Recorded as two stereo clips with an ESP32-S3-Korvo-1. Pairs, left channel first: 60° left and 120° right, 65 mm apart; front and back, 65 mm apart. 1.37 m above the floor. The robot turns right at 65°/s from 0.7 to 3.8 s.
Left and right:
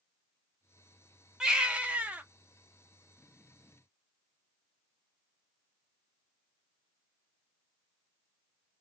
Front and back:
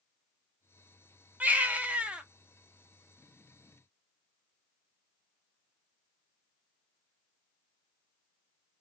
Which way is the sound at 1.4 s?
Straight behind.